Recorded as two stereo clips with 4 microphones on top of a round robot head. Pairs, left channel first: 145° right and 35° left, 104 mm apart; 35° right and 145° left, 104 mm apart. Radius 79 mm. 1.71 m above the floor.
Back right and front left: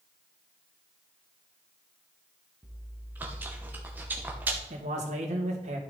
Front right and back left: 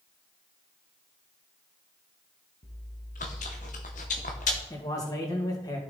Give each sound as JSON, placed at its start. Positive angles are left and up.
{"t": 2.6, "sound": "chewing", "azimuth_deg": -35, "distance_m": 0.9}
{"t": 4.7, "sound": "a man speaking", "azimuth_deg": 20, "distance_m": 2.0}